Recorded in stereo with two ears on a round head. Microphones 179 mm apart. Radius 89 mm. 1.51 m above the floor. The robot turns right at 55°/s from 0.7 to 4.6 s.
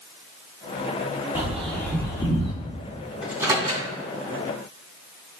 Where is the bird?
10° right (ahead or behind), 1.6 m; by 2.5 s 40° left (ahead or behind), 1.6 m.